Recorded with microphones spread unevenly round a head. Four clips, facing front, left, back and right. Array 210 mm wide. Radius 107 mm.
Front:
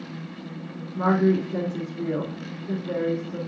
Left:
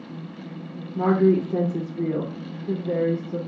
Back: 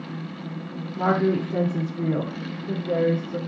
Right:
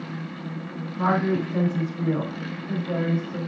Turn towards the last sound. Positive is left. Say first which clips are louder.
# left 4 dB, front 1 dB
turn(degrees=100)